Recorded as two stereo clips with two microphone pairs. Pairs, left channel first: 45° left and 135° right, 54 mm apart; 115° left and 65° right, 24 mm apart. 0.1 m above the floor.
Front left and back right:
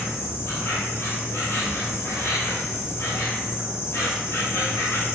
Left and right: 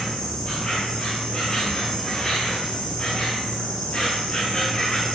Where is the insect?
65° left, 1.8 m.